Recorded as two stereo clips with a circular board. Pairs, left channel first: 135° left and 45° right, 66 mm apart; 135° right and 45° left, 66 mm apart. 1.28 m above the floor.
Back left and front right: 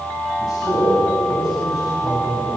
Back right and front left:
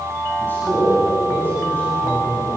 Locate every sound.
0.4 s a man speaking: 165° left, 10 m